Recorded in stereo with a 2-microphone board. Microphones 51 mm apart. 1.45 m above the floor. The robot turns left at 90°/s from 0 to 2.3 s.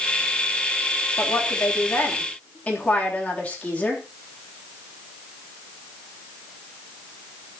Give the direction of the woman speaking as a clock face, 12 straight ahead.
8 o'clock.